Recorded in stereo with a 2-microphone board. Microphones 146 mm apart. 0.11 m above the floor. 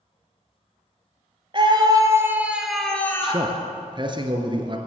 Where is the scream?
35° right (ahead or behind), 2.5 m; by 3.5 s 25° left (ahead or behind), 2.5 m.